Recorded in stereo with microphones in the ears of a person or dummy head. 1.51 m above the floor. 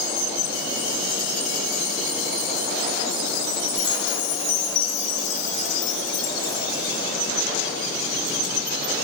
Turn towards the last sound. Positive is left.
turn(degrees=45)  # may be behind; listen again after turning